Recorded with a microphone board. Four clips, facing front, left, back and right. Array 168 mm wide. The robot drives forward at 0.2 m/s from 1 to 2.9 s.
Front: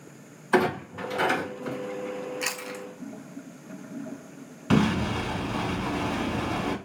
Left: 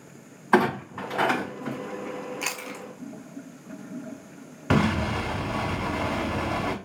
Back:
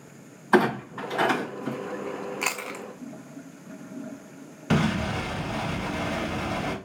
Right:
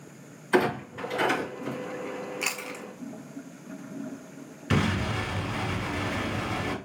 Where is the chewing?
170° left, 0.6 m.